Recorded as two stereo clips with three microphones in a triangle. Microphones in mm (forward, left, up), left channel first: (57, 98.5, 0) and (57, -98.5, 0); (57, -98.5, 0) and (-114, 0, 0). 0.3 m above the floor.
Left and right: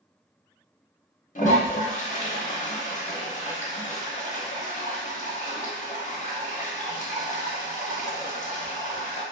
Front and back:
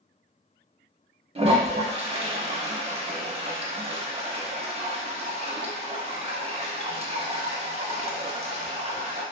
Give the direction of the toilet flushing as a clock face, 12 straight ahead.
8 o'clock.